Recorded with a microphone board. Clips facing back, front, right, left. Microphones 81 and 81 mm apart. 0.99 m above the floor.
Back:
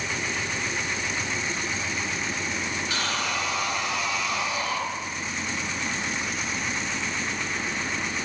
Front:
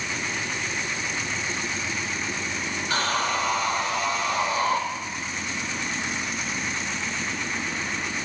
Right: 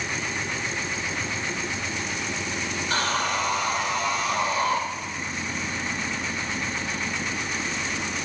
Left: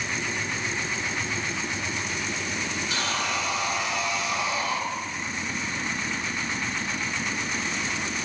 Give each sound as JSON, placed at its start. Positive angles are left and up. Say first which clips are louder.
{"t": 2.9, "sound": "sawing", "louder": "front 6 dB, right 5 dB", "azimuth_deg": -45, "distance_m": 2.5}